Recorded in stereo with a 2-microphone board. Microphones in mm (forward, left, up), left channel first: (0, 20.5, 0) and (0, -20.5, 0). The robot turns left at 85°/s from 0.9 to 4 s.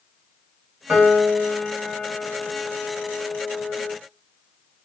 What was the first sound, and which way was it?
A piano, 70° right.